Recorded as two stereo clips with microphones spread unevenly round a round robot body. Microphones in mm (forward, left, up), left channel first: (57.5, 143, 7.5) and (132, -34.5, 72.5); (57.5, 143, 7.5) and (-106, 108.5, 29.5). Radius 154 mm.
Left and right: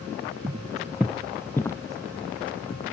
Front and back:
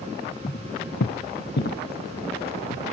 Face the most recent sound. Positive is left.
turn(degrees=45)